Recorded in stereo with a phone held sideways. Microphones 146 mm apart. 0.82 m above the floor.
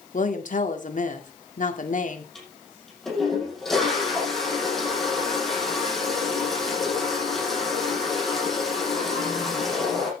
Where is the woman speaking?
65° left (ahead or behind), 2 m.